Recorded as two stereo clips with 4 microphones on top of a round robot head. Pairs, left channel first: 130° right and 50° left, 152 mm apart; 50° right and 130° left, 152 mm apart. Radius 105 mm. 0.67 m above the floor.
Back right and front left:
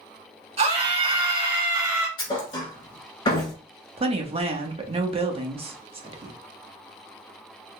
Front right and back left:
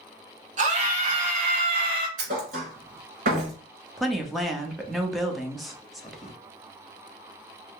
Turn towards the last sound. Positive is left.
turn(degrees=40)